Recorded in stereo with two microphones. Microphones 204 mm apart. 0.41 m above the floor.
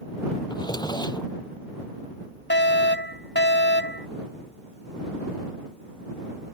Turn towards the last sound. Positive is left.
turn(degrees=65)  # may be behind; listen again after turning